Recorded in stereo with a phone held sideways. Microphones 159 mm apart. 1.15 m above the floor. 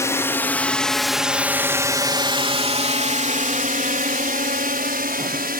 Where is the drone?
20° left (ahead or behind); by 5.6 s 70° right (ahead or behind).